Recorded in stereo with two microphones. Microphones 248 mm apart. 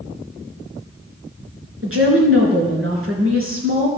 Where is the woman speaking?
60° right (ahead or behind), 4 m.